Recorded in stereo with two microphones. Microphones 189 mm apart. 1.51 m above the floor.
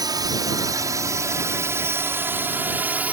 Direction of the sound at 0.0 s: 20° right (ahead or behind).